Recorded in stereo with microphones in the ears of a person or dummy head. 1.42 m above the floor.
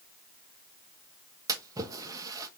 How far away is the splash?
About 1.3 m.